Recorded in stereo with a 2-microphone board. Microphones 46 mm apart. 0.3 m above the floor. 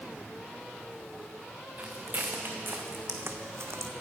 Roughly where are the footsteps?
Right.